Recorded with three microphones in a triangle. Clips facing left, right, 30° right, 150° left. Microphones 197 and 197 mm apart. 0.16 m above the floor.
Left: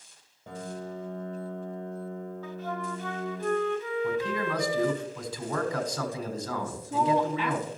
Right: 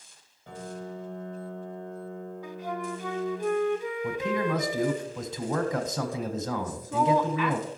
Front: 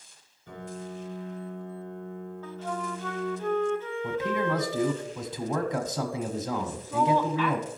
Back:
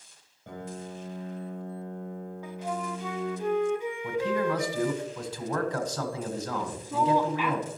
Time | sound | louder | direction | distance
0.5 | a piano | left 1 dB, even | 135° left | 4 m
2.4 | a flute | right 3 dB, back 1 dB | 150° right | 0.6 m
4.0 | a man speaking | right 3 dB, back 1 dB | 65° right | 1.3 m
6.6 | a woman speaking | even, back 1 dB | 90° left | 1.2 m